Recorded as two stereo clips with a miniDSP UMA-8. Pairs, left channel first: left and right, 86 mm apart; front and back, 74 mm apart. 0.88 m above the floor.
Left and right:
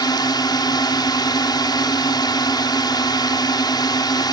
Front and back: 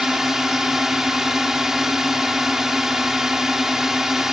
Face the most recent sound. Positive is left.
turn(degrees=95)